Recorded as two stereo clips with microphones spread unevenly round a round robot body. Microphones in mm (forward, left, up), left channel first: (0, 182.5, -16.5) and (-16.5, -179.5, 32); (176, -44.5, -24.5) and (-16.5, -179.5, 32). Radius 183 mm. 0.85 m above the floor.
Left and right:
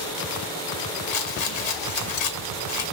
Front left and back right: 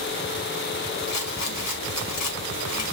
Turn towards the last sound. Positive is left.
turn(degrees=75)